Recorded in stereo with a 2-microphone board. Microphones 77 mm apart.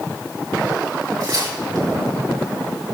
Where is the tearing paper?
70° right (ahead or behind), 6.5 m.